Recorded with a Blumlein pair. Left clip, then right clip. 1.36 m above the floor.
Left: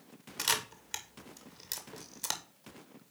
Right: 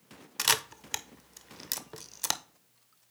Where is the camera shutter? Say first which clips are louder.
Right 4 dB; 20° right, 0.5 m.